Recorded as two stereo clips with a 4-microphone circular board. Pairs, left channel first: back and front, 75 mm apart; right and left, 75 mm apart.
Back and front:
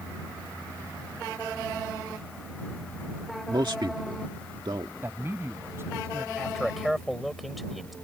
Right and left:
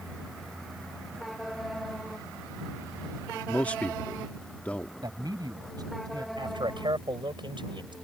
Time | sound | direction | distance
3.5 | a man speaking | 15° right | ?
5.0 | a man speaking | 60° left | ?
6.4 | a man speaking | 90° left | ?